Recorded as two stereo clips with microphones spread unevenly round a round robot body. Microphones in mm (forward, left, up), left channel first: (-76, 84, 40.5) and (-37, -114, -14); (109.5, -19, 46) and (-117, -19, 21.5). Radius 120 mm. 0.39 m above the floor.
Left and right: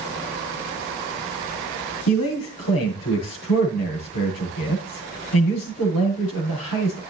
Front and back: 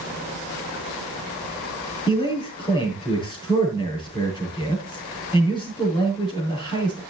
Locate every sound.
2.1 s a man speaking: 70° left, 7.5 m